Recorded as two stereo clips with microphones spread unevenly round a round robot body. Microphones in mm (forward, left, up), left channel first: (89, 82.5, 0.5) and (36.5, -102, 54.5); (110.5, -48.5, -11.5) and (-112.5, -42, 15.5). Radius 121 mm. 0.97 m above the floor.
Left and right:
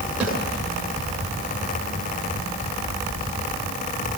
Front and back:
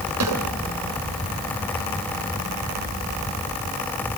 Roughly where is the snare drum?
Behind.